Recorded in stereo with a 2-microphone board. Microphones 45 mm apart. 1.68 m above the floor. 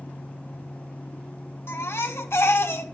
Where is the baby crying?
65° left (ahead or behind), 1.7 m.